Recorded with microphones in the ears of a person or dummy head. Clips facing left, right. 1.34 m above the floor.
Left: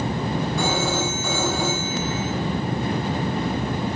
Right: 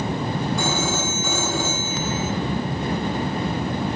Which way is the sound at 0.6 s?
5° right (ahead or behind).